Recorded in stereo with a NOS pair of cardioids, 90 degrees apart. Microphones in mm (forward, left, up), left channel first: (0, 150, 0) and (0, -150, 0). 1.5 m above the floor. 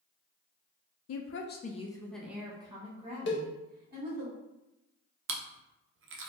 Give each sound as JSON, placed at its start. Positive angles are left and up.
{"t": 1.1, "sound": "a woman speaking", "azimuth_deg": 60, "distance_m": 0.6}
{"t": 3.3, "sound": "a cowbell", "azimuth_deg": 40, "distance_m": 0.6}
{"t": 5.3, "sound": "chewing", "azimuth_deg": -45, "distance_m": 0.6}